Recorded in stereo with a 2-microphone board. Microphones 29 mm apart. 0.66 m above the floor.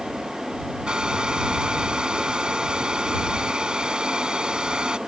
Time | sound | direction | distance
0.9 | a hair dryer | 30° right (ahead or behind) | ?